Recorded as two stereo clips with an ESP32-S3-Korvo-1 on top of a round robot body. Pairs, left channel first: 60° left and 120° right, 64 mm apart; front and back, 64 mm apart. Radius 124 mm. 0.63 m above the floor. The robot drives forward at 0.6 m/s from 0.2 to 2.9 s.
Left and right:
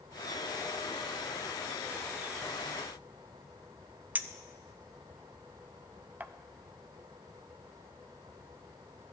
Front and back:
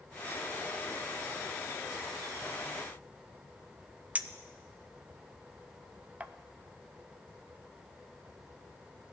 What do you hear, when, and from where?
4.2 s a clink: 145° right, 0.6 m